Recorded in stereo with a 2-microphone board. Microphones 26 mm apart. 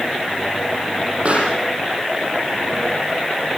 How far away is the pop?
About 7.5 m.